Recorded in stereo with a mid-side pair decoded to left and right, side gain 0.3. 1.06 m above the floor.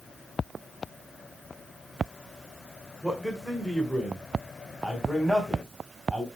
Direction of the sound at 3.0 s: 5° left.